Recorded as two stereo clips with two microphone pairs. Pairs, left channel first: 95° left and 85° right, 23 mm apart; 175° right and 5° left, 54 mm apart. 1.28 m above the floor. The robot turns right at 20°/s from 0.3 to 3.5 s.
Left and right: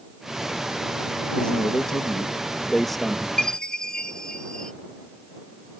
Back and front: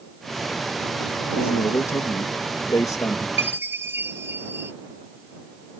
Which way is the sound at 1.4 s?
150° left.